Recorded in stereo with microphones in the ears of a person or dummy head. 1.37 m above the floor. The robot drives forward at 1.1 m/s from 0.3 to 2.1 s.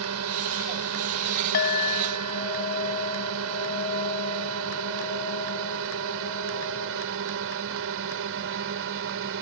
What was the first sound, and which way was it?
A drone, 80° right.